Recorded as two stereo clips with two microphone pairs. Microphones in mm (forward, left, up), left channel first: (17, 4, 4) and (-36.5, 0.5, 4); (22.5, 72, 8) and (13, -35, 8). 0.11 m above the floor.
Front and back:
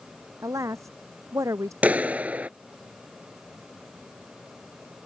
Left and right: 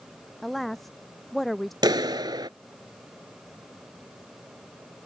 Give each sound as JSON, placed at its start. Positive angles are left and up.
{"t": 0.4, "sound": "a woman speaking", "azimuth_deg": 175}
{"t": 1.8, "sound": "a clap", "azimuth_deg": -125}